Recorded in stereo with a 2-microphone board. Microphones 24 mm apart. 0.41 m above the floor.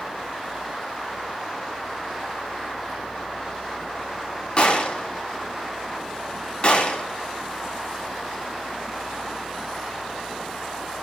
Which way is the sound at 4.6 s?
35° left (ahead or behind).